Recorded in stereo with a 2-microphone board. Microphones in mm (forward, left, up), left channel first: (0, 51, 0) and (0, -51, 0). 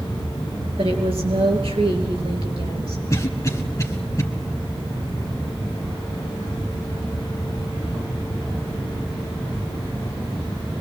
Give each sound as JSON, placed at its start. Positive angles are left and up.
{"t": 0.8, "sound": "a woman speaking", "side_deg": -70, "distance_m": 4.5}
{"t": 3.1, "sound": "a cough", "side_deg": 35, "distance_m": 1.6}